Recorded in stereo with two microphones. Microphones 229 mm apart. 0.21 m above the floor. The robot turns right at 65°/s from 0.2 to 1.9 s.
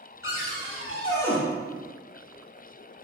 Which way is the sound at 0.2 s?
105° left.